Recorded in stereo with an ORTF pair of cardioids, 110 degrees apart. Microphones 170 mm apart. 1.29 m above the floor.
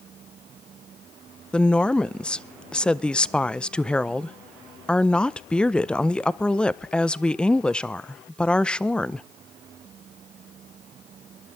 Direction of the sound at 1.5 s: 5° left.